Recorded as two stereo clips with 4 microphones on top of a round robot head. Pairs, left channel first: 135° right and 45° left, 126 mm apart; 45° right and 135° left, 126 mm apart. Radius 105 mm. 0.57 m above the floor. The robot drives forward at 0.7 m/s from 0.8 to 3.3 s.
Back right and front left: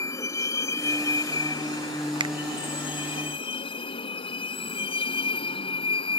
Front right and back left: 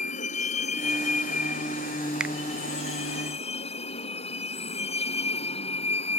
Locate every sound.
0.0 s a vehicle: 70° right; by 6.2 s 85° right
2.2 s a finger snap: 55° left; by 2.4 s 75° left